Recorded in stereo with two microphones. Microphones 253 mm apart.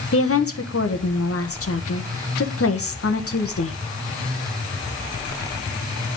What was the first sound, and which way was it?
A woman speaking, 55° left (ahead or behind).